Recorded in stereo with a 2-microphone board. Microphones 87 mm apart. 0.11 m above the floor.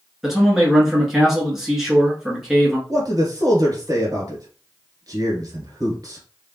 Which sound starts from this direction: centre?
A man speaking, at 0.2 s.